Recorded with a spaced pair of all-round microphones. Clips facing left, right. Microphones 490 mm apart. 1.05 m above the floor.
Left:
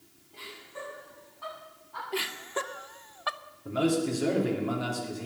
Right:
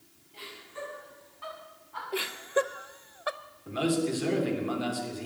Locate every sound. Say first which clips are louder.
0.3 s laughter: right 1 dB; 65° left (ahead or behind), 8 m; by 2.0 s 60° left (ahead or behind), 8.5 m
2.1 s laughter: right 5 dB; 20° left (ahead or behind), 0.5 m
3.6 s a man speaking: left 1 dB; 65° left (ahead or behind), 2.5 m